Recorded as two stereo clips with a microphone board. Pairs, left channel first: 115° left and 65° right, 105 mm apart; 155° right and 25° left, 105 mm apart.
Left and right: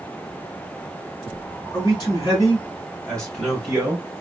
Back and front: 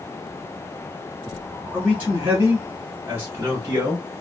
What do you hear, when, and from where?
1.7 s a man speaking: 95° left, 1.4 m; by 4.1 s 15° right, 1.1 m